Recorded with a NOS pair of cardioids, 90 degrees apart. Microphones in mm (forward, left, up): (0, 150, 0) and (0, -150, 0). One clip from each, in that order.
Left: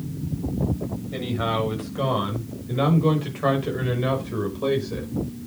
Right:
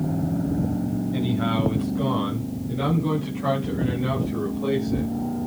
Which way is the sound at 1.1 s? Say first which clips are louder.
Left 2 dB; 60° left.